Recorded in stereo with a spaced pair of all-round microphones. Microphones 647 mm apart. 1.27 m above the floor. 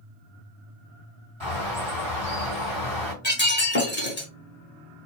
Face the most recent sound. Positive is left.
turn(degrees=15)  # may be behind; listen again after turning